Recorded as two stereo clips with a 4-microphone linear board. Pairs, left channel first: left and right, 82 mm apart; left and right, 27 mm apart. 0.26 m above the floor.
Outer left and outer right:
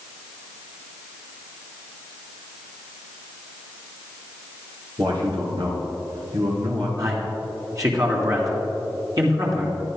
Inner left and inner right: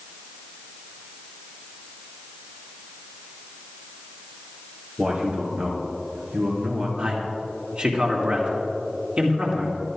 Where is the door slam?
I don't hear a door slam.